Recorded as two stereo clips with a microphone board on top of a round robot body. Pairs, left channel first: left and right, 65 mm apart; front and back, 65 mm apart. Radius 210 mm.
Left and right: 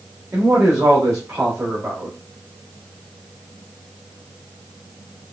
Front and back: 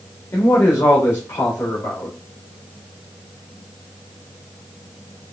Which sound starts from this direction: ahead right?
A man speaking, at 0.3 s.